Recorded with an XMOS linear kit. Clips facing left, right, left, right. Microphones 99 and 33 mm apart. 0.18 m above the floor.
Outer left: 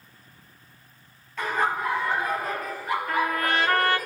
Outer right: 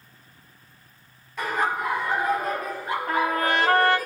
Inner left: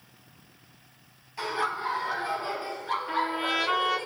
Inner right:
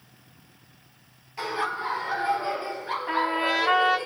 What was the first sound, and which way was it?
Laughter, 10° right (ahead or behind).